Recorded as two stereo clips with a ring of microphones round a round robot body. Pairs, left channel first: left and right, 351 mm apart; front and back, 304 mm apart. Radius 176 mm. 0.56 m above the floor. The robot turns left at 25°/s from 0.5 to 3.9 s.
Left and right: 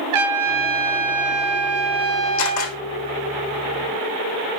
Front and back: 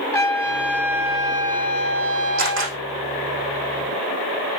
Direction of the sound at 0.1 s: 85° right.